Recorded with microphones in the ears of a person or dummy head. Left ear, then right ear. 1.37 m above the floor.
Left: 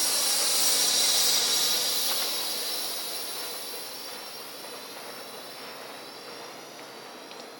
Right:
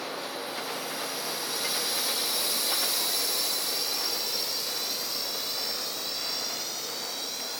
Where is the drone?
70° left (ahead or behind); by 7.6 s 50° right (ahead or behind).